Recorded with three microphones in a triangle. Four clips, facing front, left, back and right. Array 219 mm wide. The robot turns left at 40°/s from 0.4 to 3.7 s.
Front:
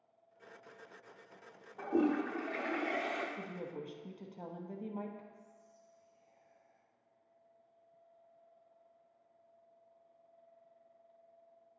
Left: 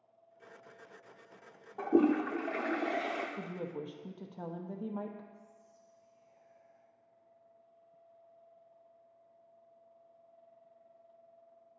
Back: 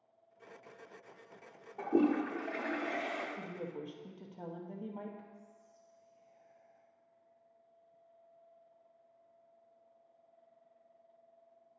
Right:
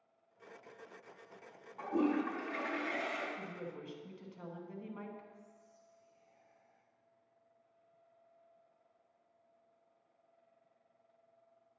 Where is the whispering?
135° right, 1.7 m.